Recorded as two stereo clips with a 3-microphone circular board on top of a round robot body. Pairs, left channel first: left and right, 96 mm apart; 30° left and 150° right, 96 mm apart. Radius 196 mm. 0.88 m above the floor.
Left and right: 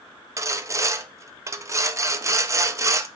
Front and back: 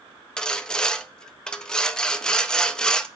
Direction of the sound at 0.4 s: 50° right.